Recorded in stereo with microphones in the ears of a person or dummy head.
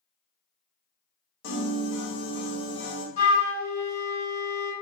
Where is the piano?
75° left (ahead or behind), 0.8 m.